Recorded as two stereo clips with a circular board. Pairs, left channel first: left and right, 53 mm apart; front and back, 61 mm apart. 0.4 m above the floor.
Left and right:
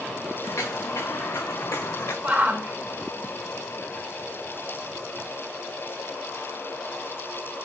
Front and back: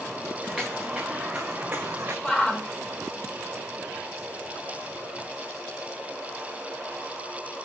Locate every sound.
0.4 s footsteps: 85° left, 1.6 m; by 2.1 s 125° left, 1.7 m
2.2 s a shout: 70° right, 1.3 m